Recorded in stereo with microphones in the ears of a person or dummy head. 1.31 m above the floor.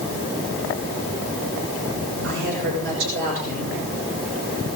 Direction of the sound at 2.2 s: 65° right (ahead or behind).